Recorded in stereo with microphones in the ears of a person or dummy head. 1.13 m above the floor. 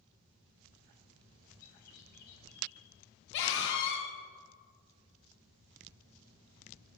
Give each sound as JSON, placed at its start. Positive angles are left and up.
{"t": 1.6, "sound": "a bird", "side_deg": 50, "distance_m": 4.0}
{"t": 3.3, "sound": "a scream", "side_deg": 65, "distance_m": 1.4}